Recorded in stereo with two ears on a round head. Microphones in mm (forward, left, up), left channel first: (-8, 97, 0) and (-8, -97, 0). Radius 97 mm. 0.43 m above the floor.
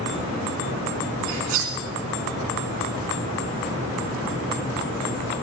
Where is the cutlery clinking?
70° right (ahead or behind), 3 m.